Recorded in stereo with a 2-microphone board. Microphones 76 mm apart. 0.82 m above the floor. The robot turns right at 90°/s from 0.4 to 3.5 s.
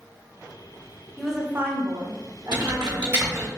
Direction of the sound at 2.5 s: 70° right (ahead or behind).